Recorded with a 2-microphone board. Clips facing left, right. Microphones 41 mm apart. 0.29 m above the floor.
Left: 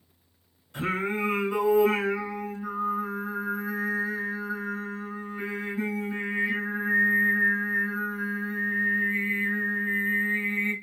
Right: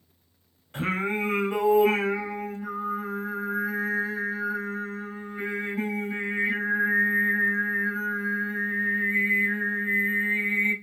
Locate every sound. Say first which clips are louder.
0.7 s singing: right 1 dB; 40° right (ahead or behind), 1.4 m